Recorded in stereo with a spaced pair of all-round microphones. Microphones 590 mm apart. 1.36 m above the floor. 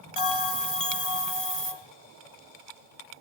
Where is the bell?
65° left (ahead or behind), 2.5 m.